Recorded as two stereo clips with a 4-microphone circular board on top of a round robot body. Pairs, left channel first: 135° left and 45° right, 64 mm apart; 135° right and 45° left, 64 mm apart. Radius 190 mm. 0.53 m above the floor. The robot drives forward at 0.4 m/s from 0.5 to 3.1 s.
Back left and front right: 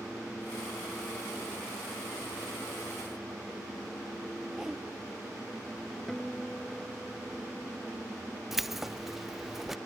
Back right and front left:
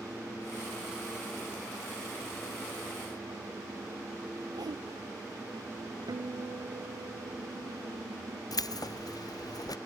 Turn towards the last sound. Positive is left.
turn(degrees=-130)